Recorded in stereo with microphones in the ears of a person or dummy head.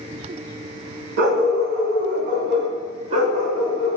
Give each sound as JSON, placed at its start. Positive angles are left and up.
{"t": 1.2, "sound": "a dog barking", "side_deg": -65, "distance_m": 3.0}